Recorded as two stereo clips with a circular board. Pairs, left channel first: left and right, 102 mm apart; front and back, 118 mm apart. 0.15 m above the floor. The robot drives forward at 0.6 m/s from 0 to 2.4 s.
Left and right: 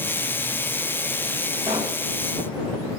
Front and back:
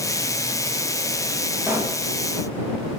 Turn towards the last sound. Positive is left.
turn(degrees=-110)